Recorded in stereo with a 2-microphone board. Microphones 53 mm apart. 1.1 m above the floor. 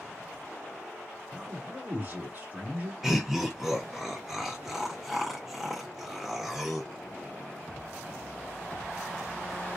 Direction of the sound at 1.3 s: 30° right (ahead or behind).